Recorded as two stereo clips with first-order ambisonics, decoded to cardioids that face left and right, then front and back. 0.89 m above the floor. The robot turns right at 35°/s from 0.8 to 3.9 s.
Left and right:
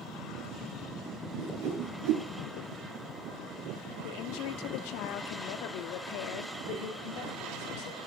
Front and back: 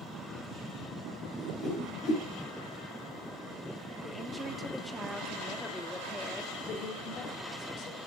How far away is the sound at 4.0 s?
About 1.8 m.